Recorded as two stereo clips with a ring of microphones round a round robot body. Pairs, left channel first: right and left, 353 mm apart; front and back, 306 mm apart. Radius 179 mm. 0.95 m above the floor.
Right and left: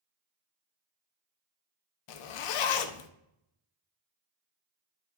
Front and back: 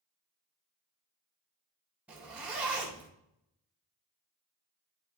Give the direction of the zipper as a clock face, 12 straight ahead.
3 o'clock.